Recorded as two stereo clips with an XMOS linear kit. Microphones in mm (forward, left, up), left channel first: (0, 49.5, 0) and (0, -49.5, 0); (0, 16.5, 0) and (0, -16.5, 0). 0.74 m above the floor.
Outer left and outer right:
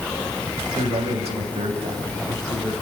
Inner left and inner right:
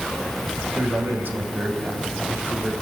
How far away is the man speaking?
About 4.5 m.